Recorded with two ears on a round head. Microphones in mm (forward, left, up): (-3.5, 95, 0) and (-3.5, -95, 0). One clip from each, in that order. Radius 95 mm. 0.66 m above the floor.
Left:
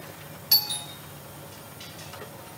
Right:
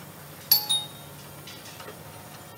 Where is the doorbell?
15° right (ahead or behind), 1.2 m.